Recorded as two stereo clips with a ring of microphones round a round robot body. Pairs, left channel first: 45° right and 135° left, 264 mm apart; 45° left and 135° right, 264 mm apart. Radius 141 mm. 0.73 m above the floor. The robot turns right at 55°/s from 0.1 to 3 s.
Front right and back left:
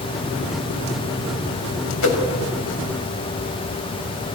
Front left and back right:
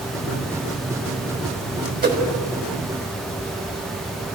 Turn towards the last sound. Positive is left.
turn(degrees=-30)